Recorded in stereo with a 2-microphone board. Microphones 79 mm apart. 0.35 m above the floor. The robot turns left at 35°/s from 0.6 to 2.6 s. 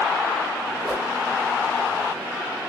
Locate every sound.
0.8 s a whoosh: 10° right (ahead or behind), 1.7 m; by 1.1 s centre (ahead or behind), 1.7 m